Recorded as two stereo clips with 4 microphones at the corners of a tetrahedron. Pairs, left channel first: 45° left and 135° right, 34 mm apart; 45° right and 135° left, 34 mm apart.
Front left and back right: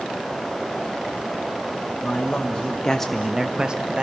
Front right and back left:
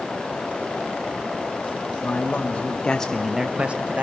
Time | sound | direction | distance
2.0 | a man speaking | 10° right | 1.4 m